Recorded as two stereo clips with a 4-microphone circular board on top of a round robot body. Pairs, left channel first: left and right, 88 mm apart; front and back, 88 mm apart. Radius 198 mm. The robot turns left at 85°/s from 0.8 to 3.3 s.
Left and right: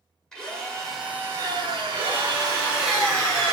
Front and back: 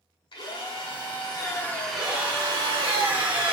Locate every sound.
0.3 s a drill: 5° left, 1.6 m; by 2.9 s 175° right, 1.6 m
1.9 s a drill: 100° right, 1.3 m; by 3.5 s 140° left, 1.3 m